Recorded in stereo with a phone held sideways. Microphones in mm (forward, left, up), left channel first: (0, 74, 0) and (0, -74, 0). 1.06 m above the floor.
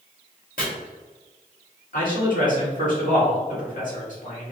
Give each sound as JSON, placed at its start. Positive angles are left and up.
{"t": 0.6, "sound": "chopping", "side_deg": 80, "distance_m": 1.8}
{"t": 1.9, "sound": "a man speaking", "side_deg": 70, "distance_m": 1.9}